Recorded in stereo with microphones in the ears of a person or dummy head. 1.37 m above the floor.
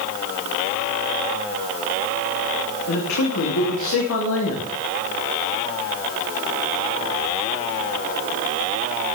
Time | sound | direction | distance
2.9 | a man speaking | 70° left (ahead or behind) | 2.5 m